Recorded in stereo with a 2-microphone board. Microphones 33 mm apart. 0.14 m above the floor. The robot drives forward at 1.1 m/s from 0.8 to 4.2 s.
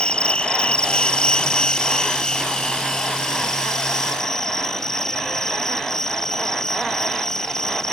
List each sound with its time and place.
0.0 s an insect: 30° left (ahead or behind); by 7.9 s 15° left (ahead or behind)